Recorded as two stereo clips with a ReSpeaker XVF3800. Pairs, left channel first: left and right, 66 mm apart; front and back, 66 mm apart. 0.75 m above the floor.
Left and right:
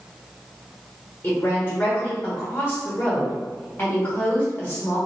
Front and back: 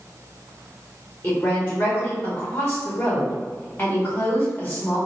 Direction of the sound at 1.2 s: 45° left.